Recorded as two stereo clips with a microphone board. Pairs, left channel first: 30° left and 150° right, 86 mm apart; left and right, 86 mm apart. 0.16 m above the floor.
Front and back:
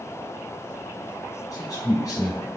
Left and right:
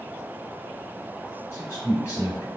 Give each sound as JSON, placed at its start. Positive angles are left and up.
{"t": 1.5, "sound": "a man speaking", "azimuth_deg": 50, "distance_m": 1.9}